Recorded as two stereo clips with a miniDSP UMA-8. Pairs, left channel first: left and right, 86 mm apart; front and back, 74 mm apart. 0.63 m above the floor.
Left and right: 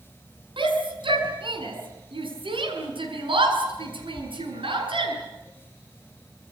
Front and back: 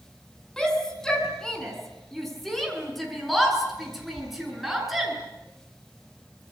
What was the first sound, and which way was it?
A shout, 80° right.